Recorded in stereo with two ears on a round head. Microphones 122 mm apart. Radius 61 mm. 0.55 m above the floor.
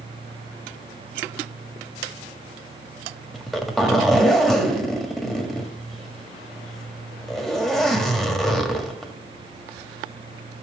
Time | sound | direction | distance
3.3 | a zipper | 5° left (ahead or behind) | 1.5 m